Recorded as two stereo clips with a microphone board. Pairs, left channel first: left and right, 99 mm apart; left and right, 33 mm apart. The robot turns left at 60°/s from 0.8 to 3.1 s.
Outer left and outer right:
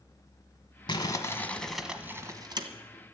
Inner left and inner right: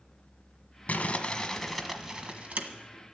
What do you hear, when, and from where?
0.9 s crumpling: 50° left, 1.4 m; by 2.7 s 55° right, 1.4 m